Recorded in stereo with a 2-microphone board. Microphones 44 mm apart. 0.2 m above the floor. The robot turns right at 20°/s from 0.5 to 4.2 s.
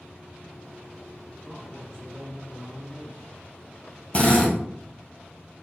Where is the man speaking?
30° left, 1.2 m; by 3.3 s 65° left, 1.2 m.